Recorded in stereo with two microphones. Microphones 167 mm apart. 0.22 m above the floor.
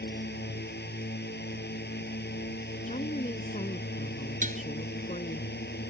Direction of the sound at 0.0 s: 75° left (ahead or behind).